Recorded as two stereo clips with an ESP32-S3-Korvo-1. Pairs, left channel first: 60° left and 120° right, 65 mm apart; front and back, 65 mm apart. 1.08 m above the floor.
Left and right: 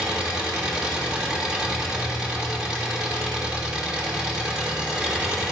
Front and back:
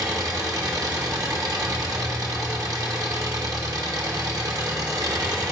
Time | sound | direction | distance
0.0 | an engine running | 165° left | 1.6 m